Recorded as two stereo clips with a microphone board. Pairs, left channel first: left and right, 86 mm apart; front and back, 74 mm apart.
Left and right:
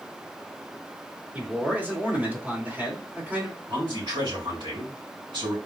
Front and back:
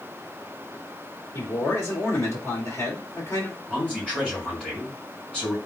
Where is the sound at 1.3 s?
30° right, 1.8 m.